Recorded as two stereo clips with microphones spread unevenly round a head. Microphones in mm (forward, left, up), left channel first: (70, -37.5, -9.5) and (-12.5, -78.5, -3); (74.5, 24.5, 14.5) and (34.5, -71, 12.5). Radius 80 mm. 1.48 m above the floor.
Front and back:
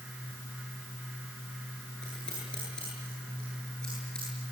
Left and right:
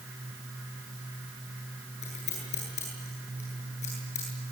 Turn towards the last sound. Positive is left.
turn(degrees=110)